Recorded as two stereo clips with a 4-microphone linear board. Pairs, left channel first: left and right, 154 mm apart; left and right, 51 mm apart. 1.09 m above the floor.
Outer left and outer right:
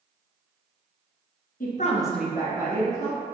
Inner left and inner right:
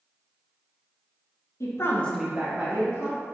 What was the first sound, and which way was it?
A woman speaking, 65° left (ahead or behind).